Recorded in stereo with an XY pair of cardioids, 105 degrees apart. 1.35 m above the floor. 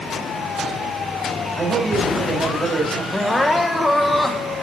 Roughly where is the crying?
Ahead.